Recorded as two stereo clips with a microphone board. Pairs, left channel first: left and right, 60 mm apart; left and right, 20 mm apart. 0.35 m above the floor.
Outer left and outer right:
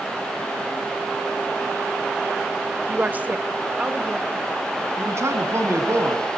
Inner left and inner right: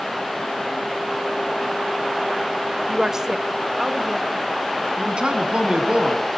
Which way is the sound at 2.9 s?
30° right (ahead or behind).